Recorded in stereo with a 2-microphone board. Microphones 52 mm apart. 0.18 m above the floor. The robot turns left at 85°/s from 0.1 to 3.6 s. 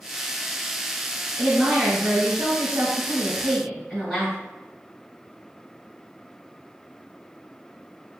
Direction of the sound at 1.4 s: Straight ahead.